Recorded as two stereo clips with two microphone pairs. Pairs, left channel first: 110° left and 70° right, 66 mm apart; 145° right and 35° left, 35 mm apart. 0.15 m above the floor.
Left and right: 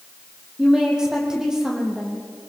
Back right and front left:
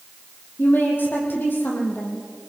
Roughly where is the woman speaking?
Behind right.